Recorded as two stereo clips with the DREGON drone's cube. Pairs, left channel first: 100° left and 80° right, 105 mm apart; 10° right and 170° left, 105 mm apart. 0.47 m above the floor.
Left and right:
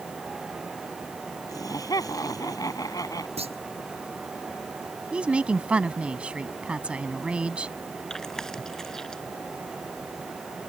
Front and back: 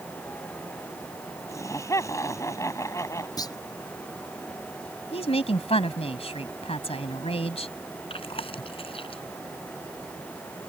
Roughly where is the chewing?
Ahead.